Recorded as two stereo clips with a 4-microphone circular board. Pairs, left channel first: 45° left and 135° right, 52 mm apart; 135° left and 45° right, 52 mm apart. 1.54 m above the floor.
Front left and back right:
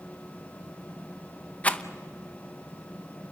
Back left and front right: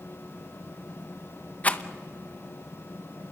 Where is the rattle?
90° left, 0.8 m.